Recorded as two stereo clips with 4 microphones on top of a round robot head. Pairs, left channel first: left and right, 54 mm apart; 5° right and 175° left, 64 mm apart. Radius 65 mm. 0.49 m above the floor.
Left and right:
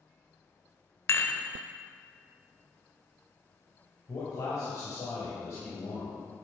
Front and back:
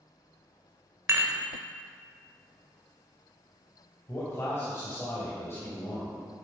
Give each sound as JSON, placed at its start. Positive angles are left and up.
{"t": 1.1, "sound": "dishes clattering", "azimuth_deg": 130, "distance_m": 1.4}
{"t": 4.1, "sound": "a man speaking", "azimuth_deg": 45, "distance_m": 2.0}